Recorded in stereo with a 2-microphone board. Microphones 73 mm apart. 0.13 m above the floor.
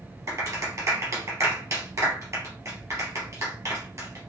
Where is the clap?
40° right (ahead or behind), 2.5 m.